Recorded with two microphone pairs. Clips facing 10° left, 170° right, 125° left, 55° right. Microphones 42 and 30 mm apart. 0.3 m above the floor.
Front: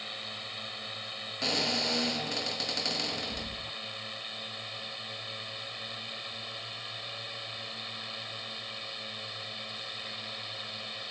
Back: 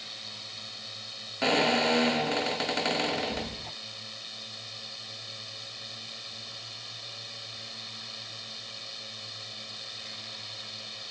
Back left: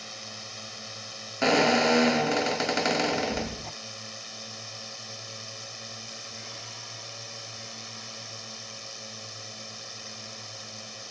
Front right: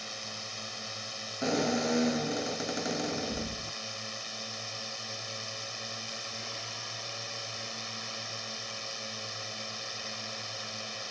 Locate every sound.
0.0 s a drone: 25° left; by 11.1 s 25° right
1.4 s a squeak: 135° left